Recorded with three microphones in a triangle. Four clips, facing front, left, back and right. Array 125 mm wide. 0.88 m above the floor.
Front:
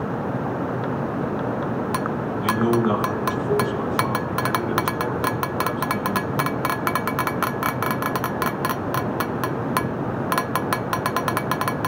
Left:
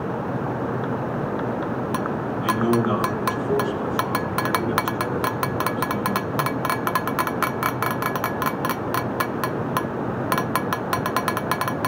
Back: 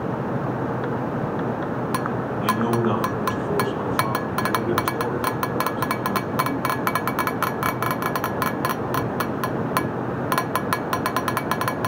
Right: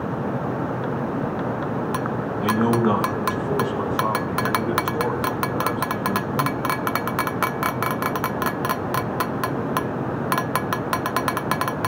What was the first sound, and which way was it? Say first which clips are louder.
A man speaking: right 1 dB, front 2 dB; 105° right.